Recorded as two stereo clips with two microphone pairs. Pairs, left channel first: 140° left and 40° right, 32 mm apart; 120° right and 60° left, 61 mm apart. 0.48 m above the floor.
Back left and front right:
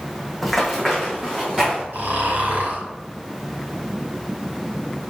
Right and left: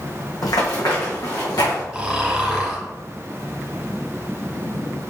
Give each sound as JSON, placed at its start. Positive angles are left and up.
{"t": 0.4, "sound": "running footsteps", "azimuth_deg": -130, "distance_m": 1.7}
{"t": 1.9, "sound": "snoring", "azimuth_deg": -20, "distance_m": 2.5}